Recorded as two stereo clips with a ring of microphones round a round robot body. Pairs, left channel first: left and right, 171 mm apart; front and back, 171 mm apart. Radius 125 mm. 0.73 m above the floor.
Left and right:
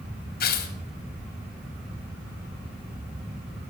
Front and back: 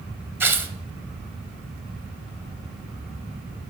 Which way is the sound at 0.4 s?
105° left.